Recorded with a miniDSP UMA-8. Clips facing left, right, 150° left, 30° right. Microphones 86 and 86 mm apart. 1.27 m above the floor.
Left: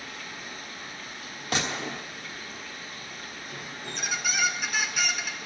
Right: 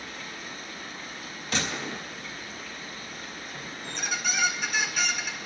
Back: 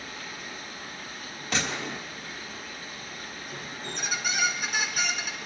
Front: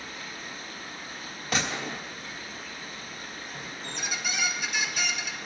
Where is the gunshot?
55° left, 3 m.